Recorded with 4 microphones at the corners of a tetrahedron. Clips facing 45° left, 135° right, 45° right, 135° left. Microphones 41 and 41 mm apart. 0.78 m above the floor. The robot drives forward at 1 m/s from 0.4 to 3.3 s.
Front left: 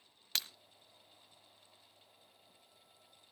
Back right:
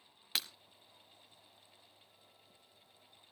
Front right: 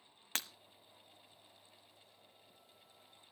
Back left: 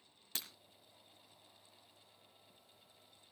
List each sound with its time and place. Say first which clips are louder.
0.3 s breaking glass: back right 1 dB, front right 6 dB; 55° right, 1.0 m; by 0.5 s 60° right, 0.9 m